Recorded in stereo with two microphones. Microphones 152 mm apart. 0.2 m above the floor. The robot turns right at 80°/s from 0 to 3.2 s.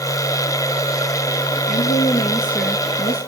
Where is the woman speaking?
105° left, 3.5 m; by 3.3 s 130° right, 3.5 m.